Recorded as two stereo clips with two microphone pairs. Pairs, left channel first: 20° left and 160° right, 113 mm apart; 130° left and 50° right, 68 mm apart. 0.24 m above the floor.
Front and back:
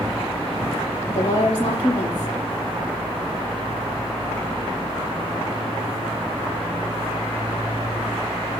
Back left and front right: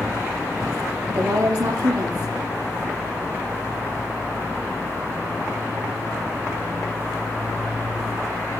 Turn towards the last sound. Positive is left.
turn(degrees=-30)